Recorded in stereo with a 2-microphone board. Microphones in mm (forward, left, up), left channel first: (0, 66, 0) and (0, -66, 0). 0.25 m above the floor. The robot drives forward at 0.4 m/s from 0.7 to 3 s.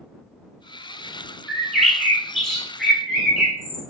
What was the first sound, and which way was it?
A bird, 5° left (ahead or behind).